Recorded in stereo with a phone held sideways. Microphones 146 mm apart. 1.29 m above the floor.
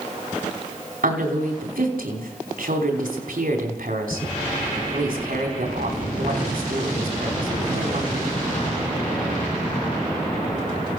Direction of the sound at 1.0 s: 80° right.